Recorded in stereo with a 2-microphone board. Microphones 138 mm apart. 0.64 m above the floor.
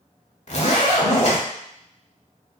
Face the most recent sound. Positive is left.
turn(degrees=55)  # may be behind; listen again after turning